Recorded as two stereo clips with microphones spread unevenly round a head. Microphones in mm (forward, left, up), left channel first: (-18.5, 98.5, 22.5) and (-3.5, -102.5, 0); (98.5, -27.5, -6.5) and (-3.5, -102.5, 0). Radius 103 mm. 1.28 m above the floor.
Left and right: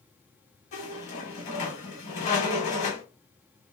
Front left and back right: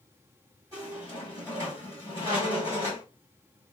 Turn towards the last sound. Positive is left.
turn(degrees=140)